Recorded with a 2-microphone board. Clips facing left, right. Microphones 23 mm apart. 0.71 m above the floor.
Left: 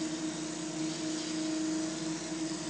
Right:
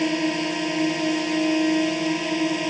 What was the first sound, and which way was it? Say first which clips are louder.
A drone: right 13 dB; 85° right.